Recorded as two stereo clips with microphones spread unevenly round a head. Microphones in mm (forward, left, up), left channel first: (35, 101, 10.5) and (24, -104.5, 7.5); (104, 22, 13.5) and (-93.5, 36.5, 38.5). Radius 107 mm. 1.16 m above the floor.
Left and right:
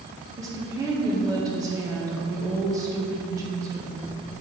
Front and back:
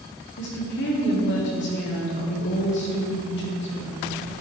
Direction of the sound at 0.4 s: 20° right.